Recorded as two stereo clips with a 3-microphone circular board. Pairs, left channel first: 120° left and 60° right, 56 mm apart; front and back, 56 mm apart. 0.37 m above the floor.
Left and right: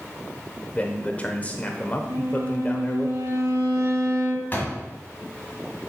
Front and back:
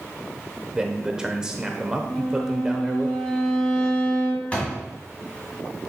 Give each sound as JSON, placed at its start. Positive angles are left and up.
{"t": 0.7, "sound": "a man speaking", "azimuth_deg": 120, "distance_m": 0.8}
{"t": 2.1, "sound": "a violin", "azimuth_deg": -80, "distance_m": 3.5}
{"t": 4.5, "sound": "a door slam", "azimuth_deg": 65, "distance_m": 1.7}